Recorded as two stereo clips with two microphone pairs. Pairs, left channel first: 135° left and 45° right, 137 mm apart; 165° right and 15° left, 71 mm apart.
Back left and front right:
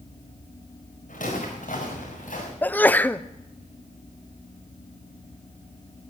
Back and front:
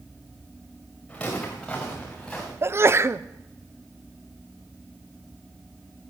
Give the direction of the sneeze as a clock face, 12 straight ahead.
10 o'clock.